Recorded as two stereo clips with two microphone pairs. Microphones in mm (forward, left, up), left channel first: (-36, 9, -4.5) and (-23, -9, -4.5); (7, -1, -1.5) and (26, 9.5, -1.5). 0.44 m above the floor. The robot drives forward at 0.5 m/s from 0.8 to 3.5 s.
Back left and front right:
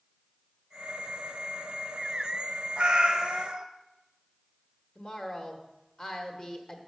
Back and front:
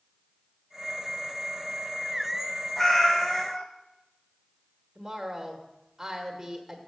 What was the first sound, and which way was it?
A cat meowing, 85° right.